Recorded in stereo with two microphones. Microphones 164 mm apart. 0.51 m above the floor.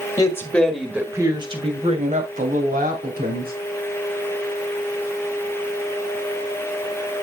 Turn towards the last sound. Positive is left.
turn(degrees=-65)  # may be behind; listen again after turning